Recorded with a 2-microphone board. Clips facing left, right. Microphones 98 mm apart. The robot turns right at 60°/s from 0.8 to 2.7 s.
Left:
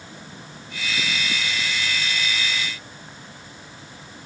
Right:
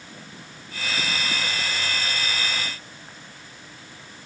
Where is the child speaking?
I don't hear a child speaking.